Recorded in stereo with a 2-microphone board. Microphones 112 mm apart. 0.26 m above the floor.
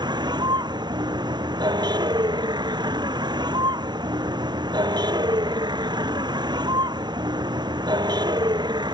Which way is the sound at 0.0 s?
45° right (ahead or behind).